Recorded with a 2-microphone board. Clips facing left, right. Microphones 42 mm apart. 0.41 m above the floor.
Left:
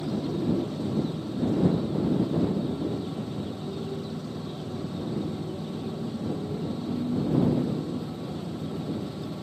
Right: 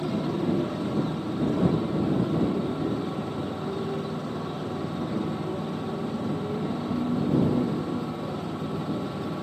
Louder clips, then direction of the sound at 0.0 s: Right 2 dB; 55° right (ahead or behind).